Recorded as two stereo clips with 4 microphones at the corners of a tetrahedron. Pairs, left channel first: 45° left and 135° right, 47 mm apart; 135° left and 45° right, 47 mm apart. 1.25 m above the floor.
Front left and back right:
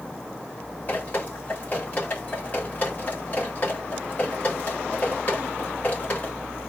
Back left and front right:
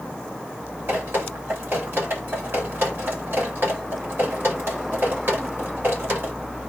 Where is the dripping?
10° right, 2.5 m.